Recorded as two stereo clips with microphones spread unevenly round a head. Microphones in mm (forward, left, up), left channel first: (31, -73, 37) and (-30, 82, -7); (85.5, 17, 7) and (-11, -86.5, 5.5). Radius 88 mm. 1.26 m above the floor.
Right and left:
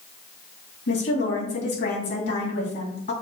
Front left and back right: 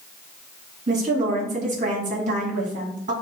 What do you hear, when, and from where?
0.9 s a woman speaking: 100° right, 2.5 m